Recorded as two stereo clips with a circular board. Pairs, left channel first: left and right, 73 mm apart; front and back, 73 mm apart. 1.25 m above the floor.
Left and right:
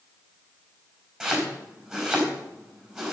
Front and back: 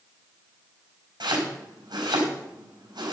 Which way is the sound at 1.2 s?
175° right.